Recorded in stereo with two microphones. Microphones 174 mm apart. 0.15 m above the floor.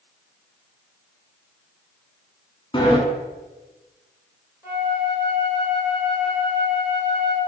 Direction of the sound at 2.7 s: 30° left (ahead or behind).